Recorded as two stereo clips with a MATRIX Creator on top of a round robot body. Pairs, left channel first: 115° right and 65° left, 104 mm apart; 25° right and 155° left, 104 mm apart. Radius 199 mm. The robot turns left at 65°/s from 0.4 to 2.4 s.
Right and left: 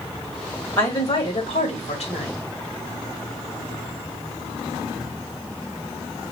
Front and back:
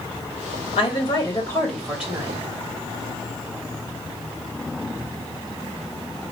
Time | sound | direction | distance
0.8 | a woman speaking | 45° right | 3 m